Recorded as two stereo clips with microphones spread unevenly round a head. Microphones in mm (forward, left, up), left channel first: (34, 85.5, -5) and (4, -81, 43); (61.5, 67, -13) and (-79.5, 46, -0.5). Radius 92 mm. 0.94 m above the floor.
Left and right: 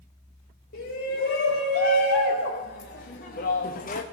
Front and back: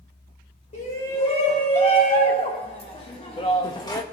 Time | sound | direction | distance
0.7 | a shout | 50° left | 3.5 m